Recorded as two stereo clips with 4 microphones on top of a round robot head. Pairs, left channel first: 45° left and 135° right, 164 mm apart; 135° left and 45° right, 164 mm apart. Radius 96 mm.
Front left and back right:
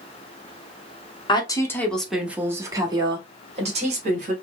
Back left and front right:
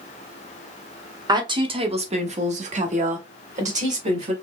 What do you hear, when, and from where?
1.3 s a woman speaking: 5° left, 1.0 m; by 4.3 s 90° right, 1.8 m